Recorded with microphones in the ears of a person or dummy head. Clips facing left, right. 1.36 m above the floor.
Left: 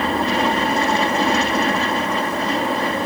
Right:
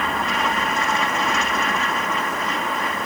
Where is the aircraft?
30° left (ahead or behind).